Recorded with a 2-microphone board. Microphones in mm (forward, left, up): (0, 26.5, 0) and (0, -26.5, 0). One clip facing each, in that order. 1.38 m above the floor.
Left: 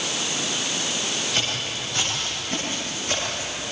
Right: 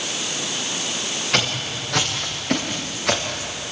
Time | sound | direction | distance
1.3 | footsteps | 65° right (ahead or behind) | 7.5 m